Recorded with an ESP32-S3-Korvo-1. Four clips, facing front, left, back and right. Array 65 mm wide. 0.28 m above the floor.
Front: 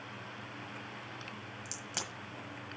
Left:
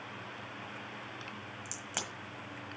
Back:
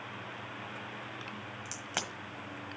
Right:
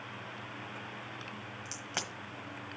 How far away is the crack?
About 1.3 m.